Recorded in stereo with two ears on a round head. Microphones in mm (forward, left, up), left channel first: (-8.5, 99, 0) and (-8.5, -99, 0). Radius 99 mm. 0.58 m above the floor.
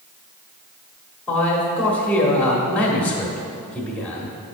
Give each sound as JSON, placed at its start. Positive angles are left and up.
{"t": 1.3, "sound": "a man speaking", "side_deg": 5, "distance_m": 1.1}